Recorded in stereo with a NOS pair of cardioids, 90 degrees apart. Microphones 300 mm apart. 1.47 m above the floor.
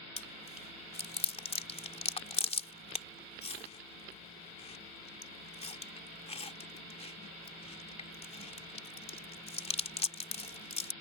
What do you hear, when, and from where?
0.2 s chewing: 20° left